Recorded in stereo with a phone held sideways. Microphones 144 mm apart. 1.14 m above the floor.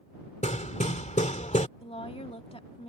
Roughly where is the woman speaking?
Left.